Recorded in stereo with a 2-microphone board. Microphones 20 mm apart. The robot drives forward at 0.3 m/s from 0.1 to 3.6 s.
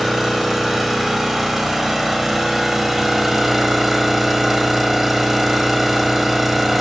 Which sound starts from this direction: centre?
An engine running, at 0.0 s.